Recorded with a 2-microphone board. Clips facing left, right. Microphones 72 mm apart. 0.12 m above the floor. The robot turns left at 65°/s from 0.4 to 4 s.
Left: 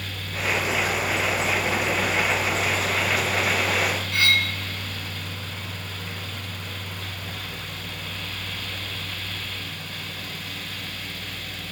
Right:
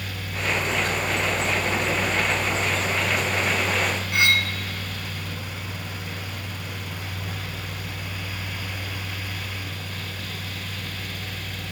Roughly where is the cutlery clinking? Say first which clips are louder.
Right 2 dB; centre.